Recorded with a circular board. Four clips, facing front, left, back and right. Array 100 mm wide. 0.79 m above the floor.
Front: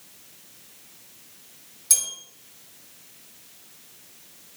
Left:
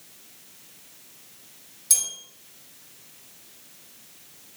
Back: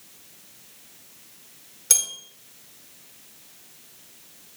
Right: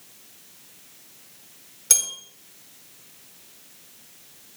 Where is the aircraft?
No aircraft in this recording.